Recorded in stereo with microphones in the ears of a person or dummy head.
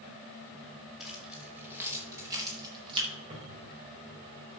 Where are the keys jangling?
Centre (ahead or behind), 3 m; by 3.1 s 30° right (ahead or behind), 3.5 m.